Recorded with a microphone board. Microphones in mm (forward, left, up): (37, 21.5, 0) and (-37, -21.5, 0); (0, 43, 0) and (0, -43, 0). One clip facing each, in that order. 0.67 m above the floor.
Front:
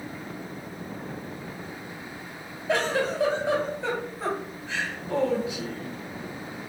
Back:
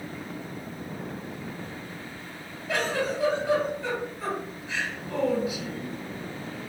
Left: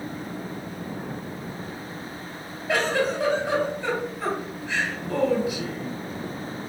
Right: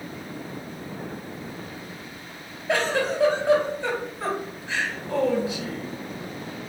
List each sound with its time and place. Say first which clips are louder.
2.7 s a giggle: front 2 dB, even; 30° right, 1.9 m